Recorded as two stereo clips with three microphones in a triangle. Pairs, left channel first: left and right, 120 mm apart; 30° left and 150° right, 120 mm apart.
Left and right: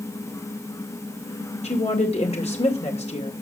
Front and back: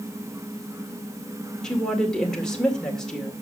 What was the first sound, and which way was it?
A woman speaking, 115° left.